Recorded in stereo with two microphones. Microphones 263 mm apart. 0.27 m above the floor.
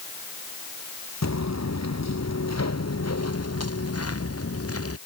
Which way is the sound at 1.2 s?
85° left.